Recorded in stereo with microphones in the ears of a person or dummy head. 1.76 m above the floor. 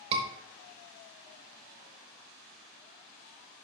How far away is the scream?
About 0.8 m.